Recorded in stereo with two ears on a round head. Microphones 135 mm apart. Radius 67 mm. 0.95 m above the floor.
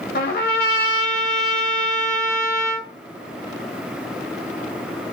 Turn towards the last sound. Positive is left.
turn(degrees=65)  # may be behind; listen again after turning